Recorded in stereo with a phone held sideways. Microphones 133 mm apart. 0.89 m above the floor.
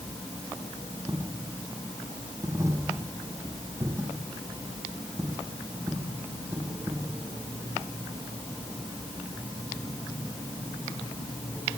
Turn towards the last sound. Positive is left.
turn(degrees=-20)  # may be behind; listen again after turning